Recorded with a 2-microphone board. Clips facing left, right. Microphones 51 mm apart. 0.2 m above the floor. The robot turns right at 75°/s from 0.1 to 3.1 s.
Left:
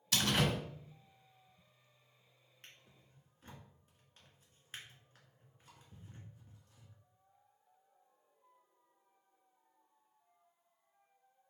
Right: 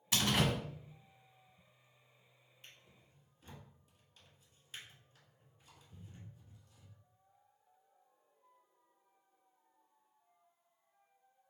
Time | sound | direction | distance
0.1 | a door slam | 50° right | 1.2 m
2.6 | a drawer | 65° left (ahead or behind) | 1.6 m